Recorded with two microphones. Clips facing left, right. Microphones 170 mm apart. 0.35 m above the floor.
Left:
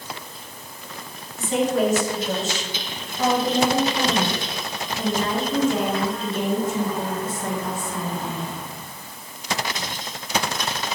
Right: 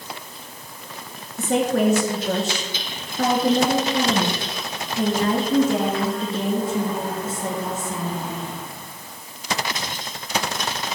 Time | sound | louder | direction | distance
1.4 | a woman speaking | right 1 dB | 75° right (ahead or behind) | 4 m